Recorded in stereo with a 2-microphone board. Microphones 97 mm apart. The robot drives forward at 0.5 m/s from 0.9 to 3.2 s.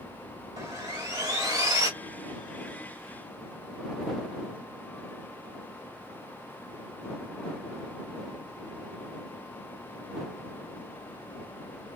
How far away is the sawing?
About 1.5 m.